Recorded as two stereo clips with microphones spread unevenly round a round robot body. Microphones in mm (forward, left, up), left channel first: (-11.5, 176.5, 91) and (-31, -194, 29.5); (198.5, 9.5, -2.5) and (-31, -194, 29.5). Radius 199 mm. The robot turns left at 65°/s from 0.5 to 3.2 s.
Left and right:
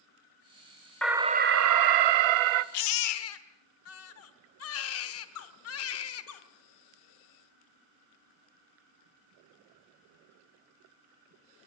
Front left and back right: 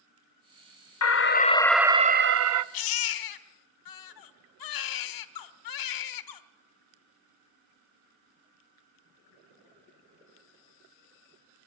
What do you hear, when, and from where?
1.0 s an alarm: straight ahead, 0.9 m; by 2.6 s 105° right, 0.9 m
2.7 s a baby crying: 70° left, 1.0 m; by 6.4 s 40° left, 1.0 m